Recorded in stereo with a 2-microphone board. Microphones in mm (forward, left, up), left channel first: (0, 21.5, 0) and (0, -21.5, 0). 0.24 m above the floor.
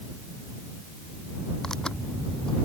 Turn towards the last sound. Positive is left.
turn(degrees=15)  # may be behind; listen again after turning